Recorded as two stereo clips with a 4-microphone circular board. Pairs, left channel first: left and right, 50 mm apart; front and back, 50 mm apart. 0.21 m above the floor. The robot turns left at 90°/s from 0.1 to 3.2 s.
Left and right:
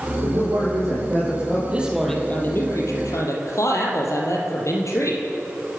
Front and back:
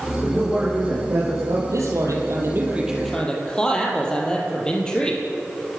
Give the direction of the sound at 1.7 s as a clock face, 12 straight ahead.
5 o'clock.